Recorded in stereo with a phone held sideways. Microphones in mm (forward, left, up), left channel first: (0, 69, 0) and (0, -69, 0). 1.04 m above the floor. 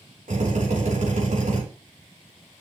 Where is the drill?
75° right (ahead or behind), 4.5 m.